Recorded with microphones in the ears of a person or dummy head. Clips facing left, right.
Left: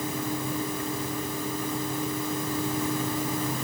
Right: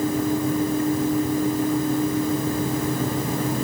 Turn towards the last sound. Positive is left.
No sound to turn to.